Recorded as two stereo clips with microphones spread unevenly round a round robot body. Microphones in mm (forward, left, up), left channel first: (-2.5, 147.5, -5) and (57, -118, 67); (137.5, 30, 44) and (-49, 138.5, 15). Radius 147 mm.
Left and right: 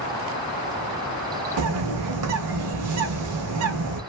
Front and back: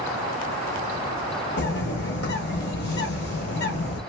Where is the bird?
75° right, 0.5 m.